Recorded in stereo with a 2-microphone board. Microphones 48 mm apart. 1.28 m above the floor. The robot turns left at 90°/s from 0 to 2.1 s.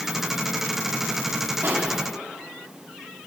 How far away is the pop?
About 2.5 m.